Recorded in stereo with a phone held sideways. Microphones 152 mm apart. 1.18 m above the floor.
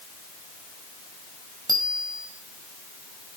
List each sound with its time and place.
1.7 s a bicycle bell: 25° right (ahead or behind), 4.5 m